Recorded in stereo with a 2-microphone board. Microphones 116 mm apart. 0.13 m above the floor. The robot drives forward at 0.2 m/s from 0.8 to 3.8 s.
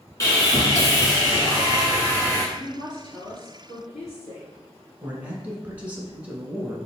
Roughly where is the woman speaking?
Left.